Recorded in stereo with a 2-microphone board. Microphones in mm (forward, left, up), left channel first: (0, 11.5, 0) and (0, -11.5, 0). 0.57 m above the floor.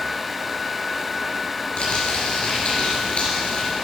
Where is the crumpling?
55° left (ahead or behind), 4.5 m.